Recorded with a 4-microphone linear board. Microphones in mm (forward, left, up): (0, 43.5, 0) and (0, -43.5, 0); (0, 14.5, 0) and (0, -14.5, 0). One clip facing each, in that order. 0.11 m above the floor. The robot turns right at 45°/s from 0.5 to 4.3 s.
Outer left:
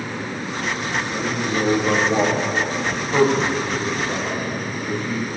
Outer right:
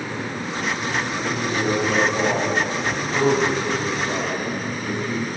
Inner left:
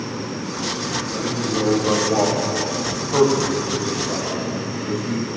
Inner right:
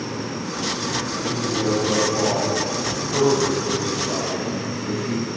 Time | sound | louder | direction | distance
1.1 | a man speaking | outer left 1 dB, inner left 1 dB | 55° left (ahead or behind) | 9 m